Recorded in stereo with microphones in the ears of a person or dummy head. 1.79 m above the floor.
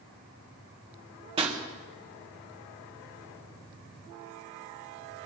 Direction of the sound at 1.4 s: 25° right (ahead or behind).